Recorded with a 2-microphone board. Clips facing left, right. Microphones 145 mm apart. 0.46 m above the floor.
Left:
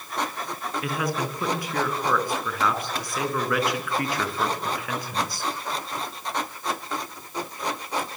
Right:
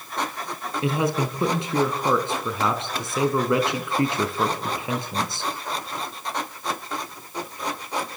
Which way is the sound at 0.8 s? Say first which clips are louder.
Right 6 dB; 25° right (ahead or behind).